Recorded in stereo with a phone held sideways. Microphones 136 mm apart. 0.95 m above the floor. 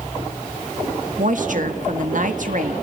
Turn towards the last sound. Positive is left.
turn(degrees=-65)  # may be behind; listen again after turning